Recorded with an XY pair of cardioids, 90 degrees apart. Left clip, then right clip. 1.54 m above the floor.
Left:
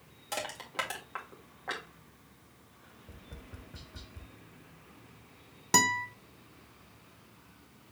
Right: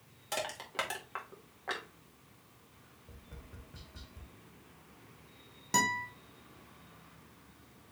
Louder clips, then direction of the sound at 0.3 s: Left 1 dB; straight ahead.